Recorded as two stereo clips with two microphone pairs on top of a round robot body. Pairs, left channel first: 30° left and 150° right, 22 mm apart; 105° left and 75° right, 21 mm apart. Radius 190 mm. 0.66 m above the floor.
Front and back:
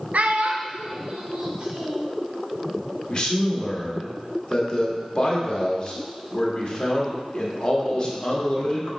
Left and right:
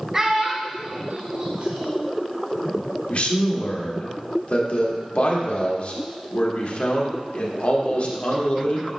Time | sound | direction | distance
0.1 | a child speaking | 150° right | 0.7 m
3.1 | a man speaking | 80° left | 1.8 m